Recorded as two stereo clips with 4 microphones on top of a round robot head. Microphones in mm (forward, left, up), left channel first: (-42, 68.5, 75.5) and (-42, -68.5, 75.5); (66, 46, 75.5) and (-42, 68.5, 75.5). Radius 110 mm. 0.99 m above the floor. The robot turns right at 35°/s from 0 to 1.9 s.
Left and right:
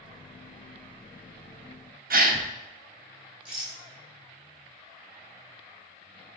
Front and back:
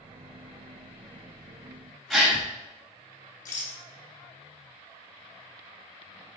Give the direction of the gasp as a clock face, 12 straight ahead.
3 o'clock.